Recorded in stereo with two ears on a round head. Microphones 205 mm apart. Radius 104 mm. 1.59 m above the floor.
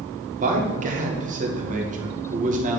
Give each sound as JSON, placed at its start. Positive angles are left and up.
{"t": 0.4, "sound": "a man speaking", "side_deg": -35, "distance_m": 1.7}